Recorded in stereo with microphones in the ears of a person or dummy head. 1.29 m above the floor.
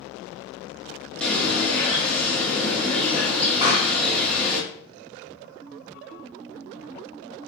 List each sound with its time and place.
1.2 s a bird: centre (ahead or behind), 0.9 m
3.6 s a pop: 35° right (ahead or behind), 1.7 m